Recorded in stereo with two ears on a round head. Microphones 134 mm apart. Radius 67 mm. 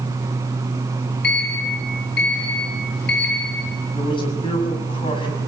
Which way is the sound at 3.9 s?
35° left (ahead or behind).